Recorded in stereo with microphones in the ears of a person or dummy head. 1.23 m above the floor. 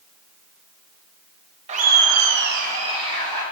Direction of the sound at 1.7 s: 35° right (ahead or behind).